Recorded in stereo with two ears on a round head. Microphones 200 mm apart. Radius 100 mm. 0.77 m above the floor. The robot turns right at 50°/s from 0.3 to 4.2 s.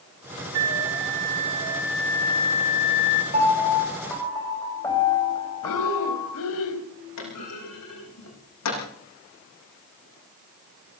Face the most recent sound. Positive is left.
turn(degrees=80)